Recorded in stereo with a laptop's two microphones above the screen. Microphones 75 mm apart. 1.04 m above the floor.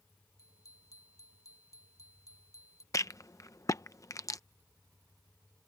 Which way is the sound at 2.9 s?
45° left (ahead or behind).